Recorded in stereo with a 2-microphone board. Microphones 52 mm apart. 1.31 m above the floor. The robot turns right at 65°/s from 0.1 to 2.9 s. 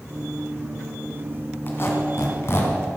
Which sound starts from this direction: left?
A squeak, at 1.7 s.